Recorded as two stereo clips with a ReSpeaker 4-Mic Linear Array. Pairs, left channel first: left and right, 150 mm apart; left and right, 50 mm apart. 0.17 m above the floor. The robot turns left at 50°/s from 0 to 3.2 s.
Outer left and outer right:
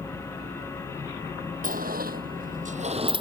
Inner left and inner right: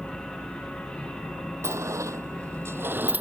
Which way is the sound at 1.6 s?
65° right (ahead or behind).